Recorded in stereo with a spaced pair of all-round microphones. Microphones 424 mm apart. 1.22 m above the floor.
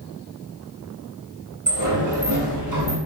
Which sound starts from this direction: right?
A sliding door, at 1.7 s.